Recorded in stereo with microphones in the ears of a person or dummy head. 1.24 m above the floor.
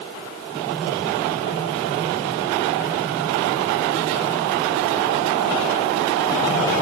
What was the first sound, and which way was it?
Only background noise.